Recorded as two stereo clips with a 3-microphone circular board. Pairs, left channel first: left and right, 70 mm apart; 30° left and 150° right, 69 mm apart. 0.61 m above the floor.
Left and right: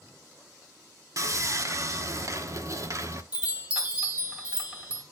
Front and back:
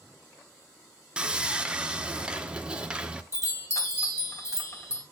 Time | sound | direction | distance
1.2 | sawing | 75° right | 1.0 m
3.3 | a chime | 15° right | 2 m